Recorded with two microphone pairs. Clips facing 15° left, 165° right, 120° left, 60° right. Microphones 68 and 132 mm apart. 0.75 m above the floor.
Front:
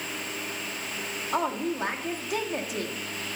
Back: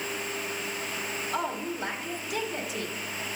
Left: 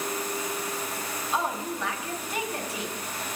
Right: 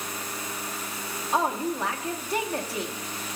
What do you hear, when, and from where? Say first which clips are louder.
1.3 s a woman speaking: front 5 dB, right 4 dB; 10° right, 1.2 m